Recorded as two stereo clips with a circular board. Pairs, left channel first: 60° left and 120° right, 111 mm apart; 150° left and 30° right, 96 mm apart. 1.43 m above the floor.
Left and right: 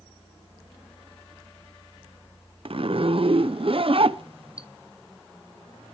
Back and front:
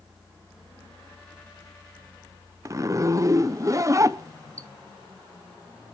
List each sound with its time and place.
2.6 s a zipper: 85° right, 0.6 m